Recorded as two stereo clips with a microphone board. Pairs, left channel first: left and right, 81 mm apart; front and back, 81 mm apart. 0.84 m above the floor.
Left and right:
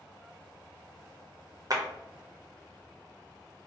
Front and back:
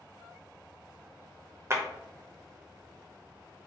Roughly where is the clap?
Behind right.